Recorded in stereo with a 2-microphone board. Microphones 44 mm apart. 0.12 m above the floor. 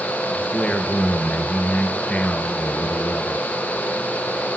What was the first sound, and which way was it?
A man speaking, 30° left (ahead or behind).